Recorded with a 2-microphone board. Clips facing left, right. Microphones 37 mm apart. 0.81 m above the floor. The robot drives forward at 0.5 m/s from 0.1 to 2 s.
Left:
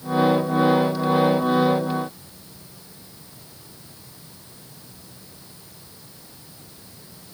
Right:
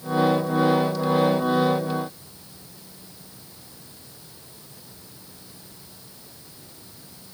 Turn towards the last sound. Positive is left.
No sound to turn to.